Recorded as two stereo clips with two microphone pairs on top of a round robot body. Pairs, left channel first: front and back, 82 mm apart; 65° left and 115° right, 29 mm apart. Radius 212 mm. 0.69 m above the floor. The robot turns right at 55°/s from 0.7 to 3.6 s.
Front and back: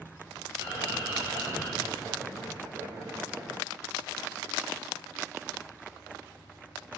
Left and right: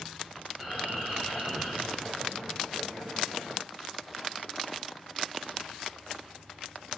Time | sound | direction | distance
0.6 | a bird | 175° right | 2 m